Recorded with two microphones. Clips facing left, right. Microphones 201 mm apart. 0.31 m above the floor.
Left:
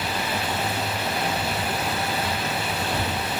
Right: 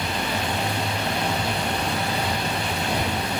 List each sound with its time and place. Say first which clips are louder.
0.0 s running water: right 1 dB; 15° right (ahead or behind)